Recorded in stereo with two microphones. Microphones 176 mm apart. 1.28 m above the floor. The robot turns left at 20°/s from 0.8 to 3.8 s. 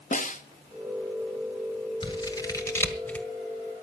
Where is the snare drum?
45° left (ahead or behind), 0.9 m.